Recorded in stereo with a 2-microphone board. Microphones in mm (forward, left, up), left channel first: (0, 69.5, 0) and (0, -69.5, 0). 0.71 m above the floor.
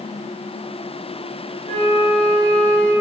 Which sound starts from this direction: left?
A flute, at 1.7 s.